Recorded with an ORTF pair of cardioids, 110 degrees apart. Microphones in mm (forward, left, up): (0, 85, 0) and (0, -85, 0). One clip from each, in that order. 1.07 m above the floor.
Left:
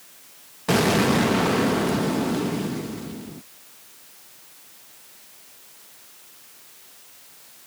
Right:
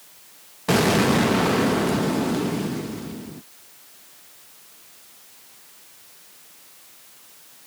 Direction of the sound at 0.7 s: 5° right.